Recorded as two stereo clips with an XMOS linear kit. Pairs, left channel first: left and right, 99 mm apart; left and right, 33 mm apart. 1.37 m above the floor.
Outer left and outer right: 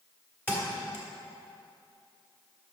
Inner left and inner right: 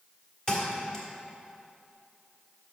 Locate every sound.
0.5 s a thud: 20° left (ahead or behind), 1.4 m